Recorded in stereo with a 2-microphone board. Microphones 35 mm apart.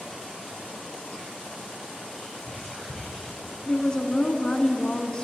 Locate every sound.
2.1 s whispering: 20° left (ahead or behind), 4.5 m
3.6 s a woman speaking: 25° left (ahead or behind), 1.1 m